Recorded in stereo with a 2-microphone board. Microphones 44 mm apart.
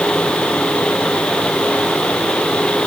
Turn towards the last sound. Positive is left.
No sound to turn to.